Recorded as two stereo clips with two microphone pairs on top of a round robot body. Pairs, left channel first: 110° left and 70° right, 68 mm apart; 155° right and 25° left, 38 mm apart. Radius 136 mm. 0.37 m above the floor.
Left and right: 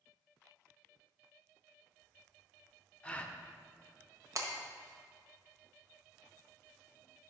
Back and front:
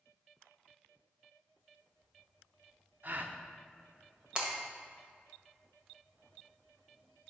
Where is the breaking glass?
40° right, 1.6 m.